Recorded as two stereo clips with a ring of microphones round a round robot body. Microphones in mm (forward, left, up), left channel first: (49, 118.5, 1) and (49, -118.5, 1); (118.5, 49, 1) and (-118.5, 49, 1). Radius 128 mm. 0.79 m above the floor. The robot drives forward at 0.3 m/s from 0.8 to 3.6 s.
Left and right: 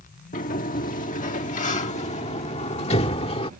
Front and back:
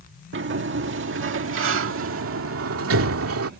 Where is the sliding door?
145° left; by 3.5 s 160° left.